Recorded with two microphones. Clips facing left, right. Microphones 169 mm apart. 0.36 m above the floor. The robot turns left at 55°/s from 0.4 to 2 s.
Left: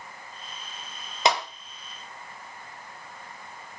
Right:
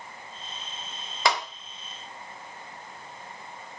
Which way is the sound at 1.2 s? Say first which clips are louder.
Left 2 dB; 20° left (ahead or behind).